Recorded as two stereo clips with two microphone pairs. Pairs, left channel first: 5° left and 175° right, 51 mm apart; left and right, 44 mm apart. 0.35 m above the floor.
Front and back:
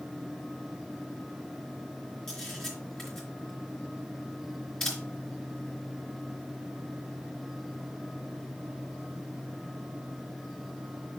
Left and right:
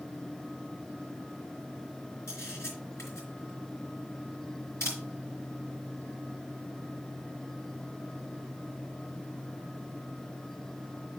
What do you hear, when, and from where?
2.3 s a camera shutter: 85° left, 4 m